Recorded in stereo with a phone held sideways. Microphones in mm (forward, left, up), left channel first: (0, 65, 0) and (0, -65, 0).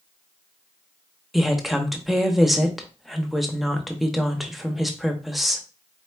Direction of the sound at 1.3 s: Centre (ahead or behind).